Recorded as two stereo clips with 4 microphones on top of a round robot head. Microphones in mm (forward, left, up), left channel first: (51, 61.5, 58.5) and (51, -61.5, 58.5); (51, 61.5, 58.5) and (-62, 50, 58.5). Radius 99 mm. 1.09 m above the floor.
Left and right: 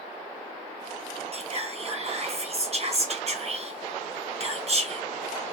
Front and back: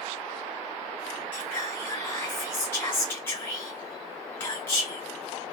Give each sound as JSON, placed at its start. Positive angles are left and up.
{"t": 1.3, "sound": "whispering", "azimuth_deg": -65, "distance_m": 1.4}